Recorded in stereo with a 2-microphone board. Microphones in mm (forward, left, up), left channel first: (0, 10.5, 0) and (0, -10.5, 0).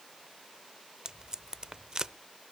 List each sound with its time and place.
1.1 s tape being pulled: 35° right (ahead or behind), 0.6 m